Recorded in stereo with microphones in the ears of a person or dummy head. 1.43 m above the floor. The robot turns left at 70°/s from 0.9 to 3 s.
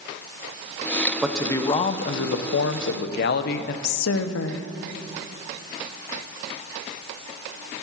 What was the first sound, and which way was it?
A man speaking, 175° right.